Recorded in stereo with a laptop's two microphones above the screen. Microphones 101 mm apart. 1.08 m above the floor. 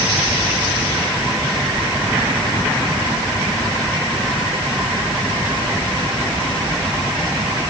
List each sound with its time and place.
Only background noise.